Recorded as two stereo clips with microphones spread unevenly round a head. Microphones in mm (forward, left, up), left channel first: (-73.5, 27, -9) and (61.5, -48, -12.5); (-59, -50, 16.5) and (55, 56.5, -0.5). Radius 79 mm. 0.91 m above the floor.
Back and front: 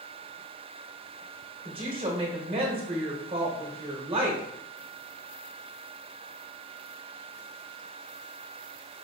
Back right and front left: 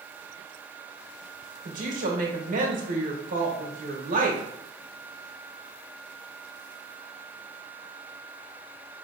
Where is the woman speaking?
25° left, 1.1 m.